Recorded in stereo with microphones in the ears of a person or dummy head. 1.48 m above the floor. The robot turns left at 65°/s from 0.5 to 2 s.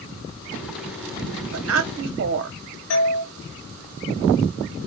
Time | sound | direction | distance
1.5 | a woman speaking | 75° right | 0.6 m
2.9 | a doorbell | 70° left (ahead or behind) | 1.1 m